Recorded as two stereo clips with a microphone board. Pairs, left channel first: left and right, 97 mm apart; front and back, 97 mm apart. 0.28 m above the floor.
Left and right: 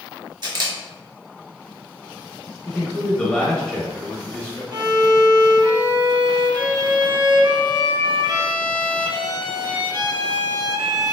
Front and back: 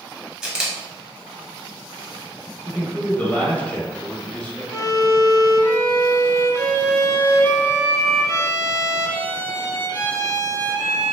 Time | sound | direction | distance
0.4 | a camera shutter | 100° right | 0.8 m
2.6 | a man speaking | 35° left | 0.9 m
4.7 | a violin | 60° right | 0.5 m